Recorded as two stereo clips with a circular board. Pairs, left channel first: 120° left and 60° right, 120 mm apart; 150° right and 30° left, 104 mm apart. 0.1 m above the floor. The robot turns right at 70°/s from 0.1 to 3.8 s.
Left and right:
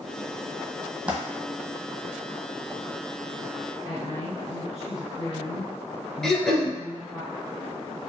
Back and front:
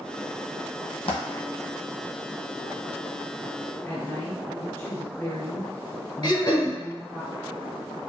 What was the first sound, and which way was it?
A dropped coin, 140° right.